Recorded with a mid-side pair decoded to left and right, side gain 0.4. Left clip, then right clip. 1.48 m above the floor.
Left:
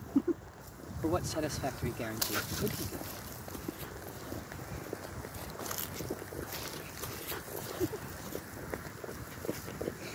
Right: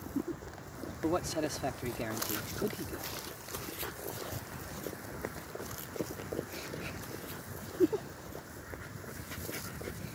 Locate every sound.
1.0 s a man speaking: 5° right